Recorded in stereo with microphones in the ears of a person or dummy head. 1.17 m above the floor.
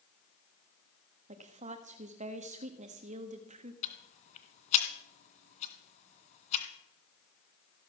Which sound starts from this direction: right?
A woman speaking, at 1.3 s.